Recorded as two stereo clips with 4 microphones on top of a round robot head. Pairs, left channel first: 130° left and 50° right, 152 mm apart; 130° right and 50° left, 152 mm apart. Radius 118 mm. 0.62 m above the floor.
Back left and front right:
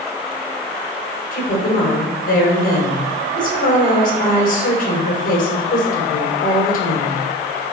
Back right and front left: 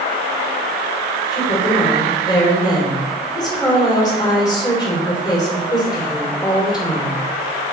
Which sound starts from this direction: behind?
A woman speaking, at 1.3 s.